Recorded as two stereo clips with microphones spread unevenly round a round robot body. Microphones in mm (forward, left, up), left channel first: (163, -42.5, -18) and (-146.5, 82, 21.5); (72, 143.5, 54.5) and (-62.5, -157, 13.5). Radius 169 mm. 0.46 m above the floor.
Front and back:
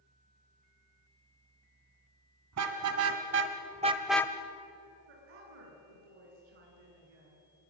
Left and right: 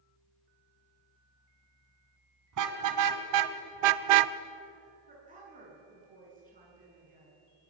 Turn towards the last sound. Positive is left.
turn(degrees=180)